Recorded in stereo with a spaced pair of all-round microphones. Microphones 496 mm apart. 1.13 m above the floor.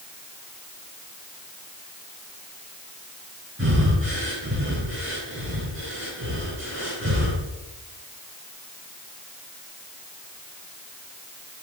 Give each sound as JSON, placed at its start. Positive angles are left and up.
{"t": 3.6, "sound": "breathing", "side_deg": -25, "distance_m": 5.0}